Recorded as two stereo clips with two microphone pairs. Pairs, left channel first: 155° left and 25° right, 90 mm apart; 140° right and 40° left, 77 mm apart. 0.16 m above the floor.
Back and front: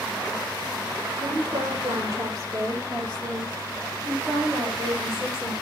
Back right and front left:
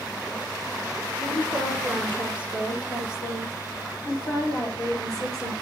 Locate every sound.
1.1 s a woman speaking: 70° right, 4.5 m; by 5.5 s 110° right, 5.5 m